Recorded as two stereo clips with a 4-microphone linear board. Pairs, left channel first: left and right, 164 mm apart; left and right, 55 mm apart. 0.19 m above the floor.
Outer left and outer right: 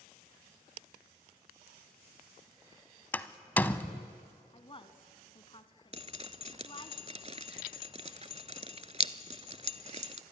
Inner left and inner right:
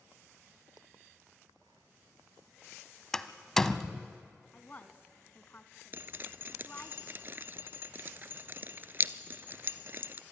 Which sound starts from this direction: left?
A woman speaking, at 4.5 s.